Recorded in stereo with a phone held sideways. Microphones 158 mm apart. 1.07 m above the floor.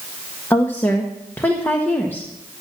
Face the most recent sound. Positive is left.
turn(degrees=10)  # may be behind; listen again after turning